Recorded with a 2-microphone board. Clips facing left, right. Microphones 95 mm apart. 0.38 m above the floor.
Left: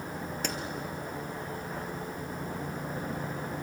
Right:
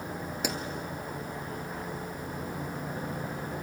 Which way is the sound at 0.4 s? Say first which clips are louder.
Right 3 dB; 10° right (ahead or behind).